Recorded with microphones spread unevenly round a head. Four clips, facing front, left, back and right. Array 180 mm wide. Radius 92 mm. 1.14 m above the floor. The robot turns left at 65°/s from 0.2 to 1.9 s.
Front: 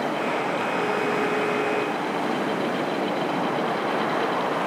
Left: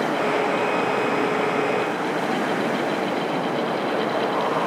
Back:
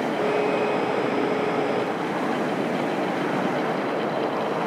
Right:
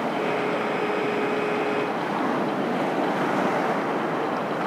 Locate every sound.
Only background noise.